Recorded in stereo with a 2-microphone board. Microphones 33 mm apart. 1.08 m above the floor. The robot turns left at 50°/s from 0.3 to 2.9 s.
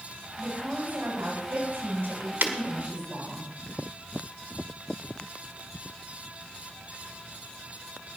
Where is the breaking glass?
70° right (ahead or behind), 1.7 m; by 2.6 s 65° right (ahead or behind), 1.7 m.